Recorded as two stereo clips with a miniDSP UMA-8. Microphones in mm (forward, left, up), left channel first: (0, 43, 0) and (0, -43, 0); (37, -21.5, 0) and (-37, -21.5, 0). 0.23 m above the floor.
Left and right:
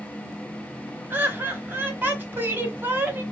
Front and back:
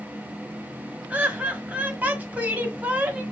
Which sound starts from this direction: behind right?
Laughter, at 1.1 s.